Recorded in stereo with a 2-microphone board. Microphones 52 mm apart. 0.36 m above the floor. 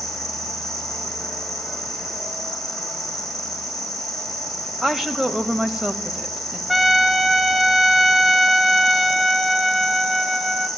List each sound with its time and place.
0.0 s an insect: centre (ahead or behind), 5.5 m
4.8 s a woman speaking: 10° right (ahead or behind), 1.5 m
6.7 s a trumpet: centre (ahead or behind), 0.8 m